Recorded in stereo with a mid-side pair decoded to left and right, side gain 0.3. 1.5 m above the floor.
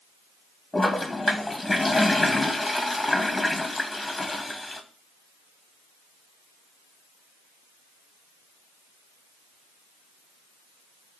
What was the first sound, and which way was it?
A toilet flushing, 25° left.